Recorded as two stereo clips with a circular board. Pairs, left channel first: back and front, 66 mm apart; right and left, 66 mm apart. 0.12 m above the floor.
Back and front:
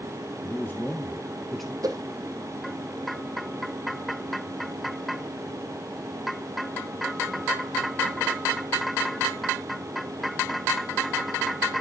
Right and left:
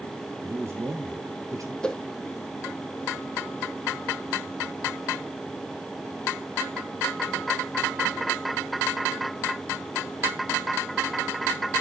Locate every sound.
0.4 s a man speaking: 130° left, 2.5 m; by 1.7 s 90° left, 2 m
1.8 s a whoosh: 10° right, 1.3 m